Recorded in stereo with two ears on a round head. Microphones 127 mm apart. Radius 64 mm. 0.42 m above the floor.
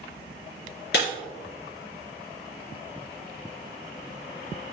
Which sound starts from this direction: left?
Breaking glass, at 0.9 s.